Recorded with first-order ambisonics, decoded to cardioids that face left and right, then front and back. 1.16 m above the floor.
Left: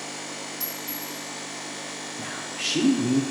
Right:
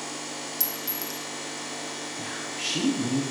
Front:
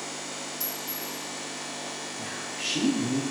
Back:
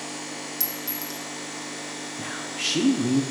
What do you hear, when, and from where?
0.6 s a clink: 130° right, 0.8 m
2.2 s a man speaking: 155° left, 0.7 m